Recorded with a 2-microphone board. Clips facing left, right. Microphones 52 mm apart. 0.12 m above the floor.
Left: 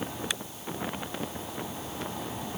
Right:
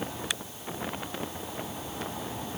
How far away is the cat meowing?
No cat meowing in this recording.